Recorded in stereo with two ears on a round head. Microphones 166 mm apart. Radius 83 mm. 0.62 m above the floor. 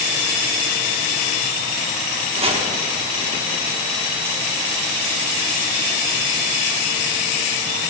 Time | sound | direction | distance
2.3 | chopping | 30° right (ahead or behind) | 0.8 m